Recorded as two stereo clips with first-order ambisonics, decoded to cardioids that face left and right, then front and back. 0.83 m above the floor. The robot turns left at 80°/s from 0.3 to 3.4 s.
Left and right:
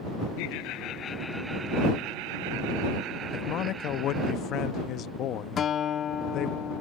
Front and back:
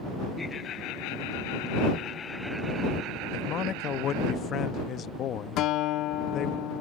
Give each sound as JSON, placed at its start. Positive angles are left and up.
{"t": 0.4, "sound": "laughter", "azimuth_deg": 80}
{"t": 3.3, "sound": "a man speaking", "azimuth_deg": 55}
{"t": 5.6, "sound": "a guitar", "azimuth_deg": 35}